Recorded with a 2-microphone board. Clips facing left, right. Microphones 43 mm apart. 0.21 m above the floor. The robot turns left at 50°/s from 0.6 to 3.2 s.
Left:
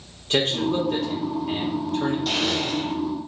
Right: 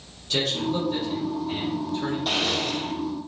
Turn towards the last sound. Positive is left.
turn(degrees=145)